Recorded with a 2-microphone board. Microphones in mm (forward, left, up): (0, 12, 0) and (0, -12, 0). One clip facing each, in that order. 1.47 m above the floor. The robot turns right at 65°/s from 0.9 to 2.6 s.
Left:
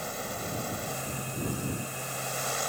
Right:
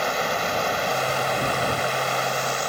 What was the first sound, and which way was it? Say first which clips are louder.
Running water: right 12 dB; 140° right.